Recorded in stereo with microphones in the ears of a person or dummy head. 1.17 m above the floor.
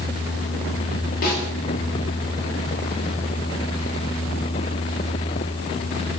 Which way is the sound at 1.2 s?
45° left (ahead or behind).